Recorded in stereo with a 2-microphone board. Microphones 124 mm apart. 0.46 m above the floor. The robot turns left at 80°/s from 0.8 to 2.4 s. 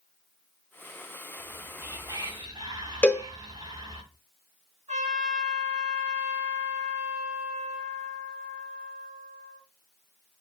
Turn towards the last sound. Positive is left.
turn(degrees=-60)  # may be behind; listen again after turning